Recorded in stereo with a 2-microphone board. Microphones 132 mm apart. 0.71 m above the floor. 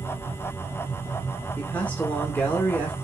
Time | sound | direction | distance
1.6 | a man speaking | 10° left (ahead or behind) | 1.9 m